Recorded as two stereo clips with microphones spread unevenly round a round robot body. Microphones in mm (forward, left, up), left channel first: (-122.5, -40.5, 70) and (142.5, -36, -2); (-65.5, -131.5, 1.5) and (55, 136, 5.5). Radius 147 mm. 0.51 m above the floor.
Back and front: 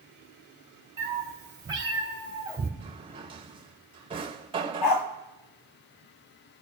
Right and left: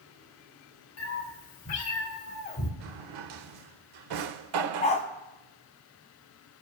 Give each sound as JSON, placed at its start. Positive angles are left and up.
{"t": 1.0, "sound": "a cat meowing", "azimuth_deg": -75, "distance_m": 3.0}
{"t": 2.8, "sound": "a drawer", "azimuth_deg": 70, "distance_m": 0.7}
{"t": 4.8, "sound": "a dog barking", "azimuth_deg": 175, "distance_m": 1.6}